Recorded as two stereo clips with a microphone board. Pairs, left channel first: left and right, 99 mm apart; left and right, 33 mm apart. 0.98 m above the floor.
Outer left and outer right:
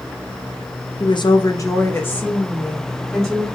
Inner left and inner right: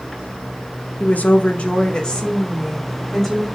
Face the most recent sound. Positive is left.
turn(degrees=5)  # may be behind; listen again after turning